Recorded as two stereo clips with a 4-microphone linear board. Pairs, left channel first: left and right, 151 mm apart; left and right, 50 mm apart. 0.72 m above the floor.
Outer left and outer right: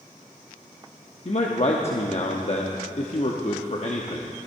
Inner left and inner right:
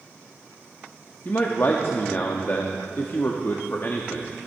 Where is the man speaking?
50° left (ahead or behind), 0.8 m.